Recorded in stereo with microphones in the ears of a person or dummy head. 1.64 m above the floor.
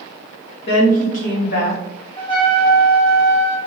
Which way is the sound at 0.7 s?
35° left (ahead or behind).